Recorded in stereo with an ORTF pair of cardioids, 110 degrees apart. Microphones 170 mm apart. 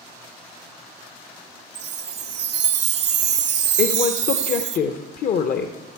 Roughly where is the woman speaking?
Ahead left.